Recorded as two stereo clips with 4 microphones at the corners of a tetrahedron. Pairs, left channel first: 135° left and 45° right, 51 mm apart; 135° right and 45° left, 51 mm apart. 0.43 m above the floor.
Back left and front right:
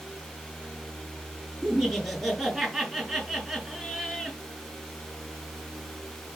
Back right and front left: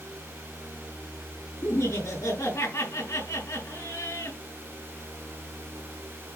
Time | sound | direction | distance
1.6 | laughter | 130° right | 4.5 m